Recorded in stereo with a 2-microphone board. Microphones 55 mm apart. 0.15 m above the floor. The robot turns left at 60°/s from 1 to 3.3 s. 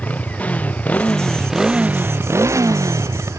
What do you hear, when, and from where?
0.0 s a motorcycle: 25° left; by 3.4 s 110° right